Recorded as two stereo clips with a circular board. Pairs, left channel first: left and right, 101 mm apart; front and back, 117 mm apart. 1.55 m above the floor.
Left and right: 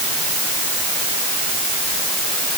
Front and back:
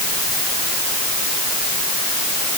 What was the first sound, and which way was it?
Only background noise.